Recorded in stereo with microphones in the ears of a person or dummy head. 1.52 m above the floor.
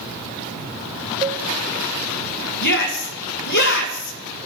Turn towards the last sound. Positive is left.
turn(degrees=60)  # may be behind; listen again after turning